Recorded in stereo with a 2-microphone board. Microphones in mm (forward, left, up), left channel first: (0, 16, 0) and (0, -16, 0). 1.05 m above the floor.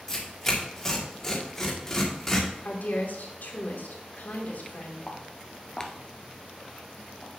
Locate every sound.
0.1 s tearing paper: 15° left (ahead or behind), 2 m
2.6 s a woman speaking: 85° left, 2.5 m
5.1 s footsteps: 35° left (ahead or behind), 1.6 m; by 7.3 s 40° right (ahead or behind), 1.3 m